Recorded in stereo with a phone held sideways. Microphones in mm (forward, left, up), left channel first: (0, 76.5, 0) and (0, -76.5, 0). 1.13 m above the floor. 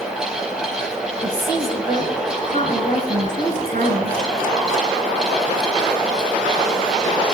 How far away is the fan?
About 2.5 m.